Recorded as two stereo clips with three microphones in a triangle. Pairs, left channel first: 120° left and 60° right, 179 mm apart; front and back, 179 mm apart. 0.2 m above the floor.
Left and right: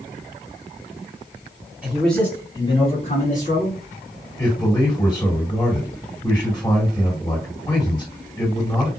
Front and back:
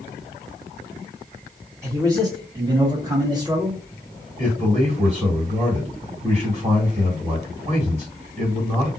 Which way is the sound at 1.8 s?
135° right.